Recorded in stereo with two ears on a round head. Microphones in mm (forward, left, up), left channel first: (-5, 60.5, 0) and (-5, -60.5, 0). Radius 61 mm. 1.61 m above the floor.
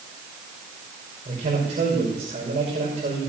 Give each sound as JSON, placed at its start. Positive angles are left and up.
{"t": 1.2, "sound": "a man speaking", "side_deg": -50, "distance_m": 5.5}